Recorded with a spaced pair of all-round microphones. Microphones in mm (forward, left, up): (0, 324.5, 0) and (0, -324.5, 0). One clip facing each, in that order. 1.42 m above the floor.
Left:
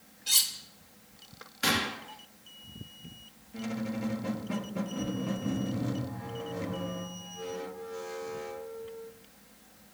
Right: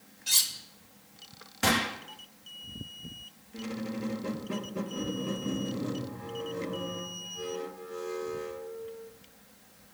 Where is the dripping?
No dripping in this recording.